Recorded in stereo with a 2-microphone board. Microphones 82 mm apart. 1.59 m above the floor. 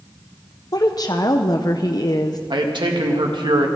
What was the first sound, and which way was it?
A woman speaking, 50° left (ahead or behind).